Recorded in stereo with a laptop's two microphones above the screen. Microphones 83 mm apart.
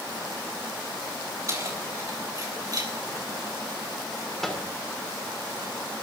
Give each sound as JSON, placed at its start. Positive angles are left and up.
{"t": 1.5, "sound": "keys jangling", "side_deg": -40, "distance_m": 3.5}
{"t": 4.4, "sound": "a microwave", "side_deg": 5, "distance_m": 2.5}